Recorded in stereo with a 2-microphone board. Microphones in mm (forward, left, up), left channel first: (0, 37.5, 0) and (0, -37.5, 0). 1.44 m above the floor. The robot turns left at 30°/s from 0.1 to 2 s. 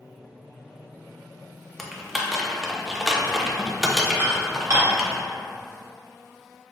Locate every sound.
1.8 s typing on a keyboard: 5° left (ahead or behind), 0.6 m; by 5.2 s 5° right (ahead or behind), 0.6 m
4.2 s dishes clattering: 35° right (ahead or behind), 1.3 m